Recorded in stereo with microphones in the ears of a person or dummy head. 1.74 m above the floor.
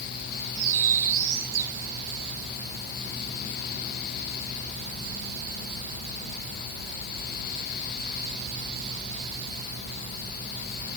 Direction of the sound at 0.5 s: 45° right (ahead or behind).